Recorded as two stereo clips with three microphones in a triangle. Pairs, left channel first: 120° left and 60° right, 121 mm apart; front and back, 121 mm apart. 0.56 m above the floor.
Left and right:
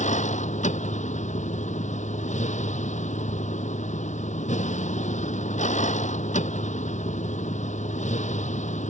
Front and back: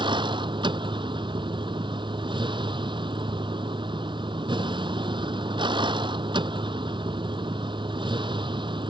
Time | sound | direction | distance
0.0 | a vehicle | 130° left | ?